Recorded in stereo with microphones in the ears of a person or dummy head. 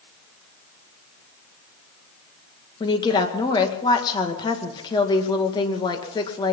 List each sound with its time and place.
2.8 s a woman speaking: 20° left (ahead or behind), 2 m